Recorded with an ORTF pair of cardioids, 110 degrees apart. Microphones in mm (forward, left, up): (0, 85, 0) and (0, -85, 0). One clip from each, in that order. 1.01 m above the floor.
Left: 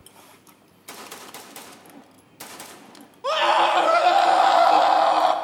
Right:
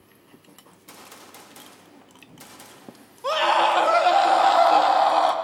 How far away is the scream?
About 1.1 m.